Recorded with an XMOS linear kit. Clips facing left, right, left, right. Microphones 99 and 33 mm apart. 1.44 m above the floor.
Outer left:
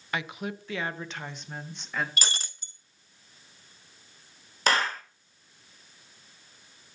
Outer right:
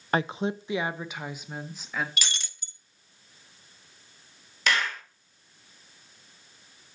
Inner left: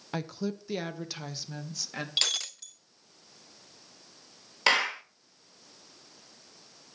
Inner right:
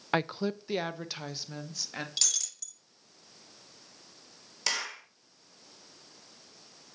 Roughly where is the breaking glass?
Left.